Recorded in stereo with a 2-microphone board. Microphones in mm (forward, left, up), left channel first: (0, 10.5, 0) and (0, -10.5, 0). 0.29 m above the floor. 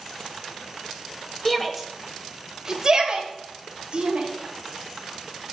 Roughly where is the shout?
Centre.